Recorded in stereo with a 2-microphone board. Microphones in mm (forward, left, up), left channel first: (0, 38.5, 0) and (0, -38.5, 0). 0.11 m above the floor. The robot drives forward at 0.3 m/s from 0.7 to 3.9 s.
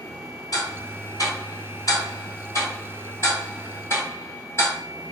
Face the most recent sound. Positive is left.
turn(degrees=35)  # may be behind; listen again after turning